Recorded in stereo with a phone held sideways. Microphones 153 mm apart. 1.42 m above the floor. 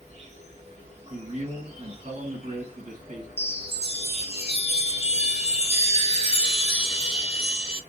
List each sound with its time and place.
0.0 s an insect: 50° right (ahead or behind), 0.9 m
1.1 s a man speaking: 55° right (ahead or behind), 1.3 m
3.4 s a chime: 45° left (ahead or behind), 0.6 m